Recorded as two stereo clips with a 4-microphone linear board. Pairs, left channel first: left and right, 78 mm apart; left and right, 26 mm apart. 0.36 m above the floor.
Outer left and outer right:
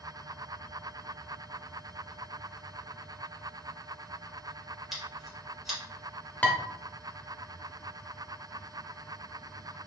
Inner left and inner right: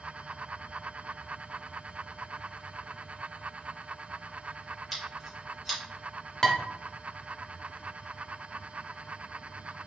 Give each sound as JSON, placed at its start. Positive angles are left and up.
{"t": 4.9, "sound": "scissors", "side_deg": 0, "distance_m": 1.5}
{"t": 6.4, "sound": "dishes clattering", "side_deg": 20, "distance_m": 0.6}